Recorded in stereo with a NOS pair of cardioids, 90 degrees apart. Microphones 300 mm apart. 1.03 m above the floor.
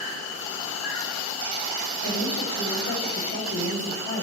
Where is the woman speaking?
45° left, 4.5 m.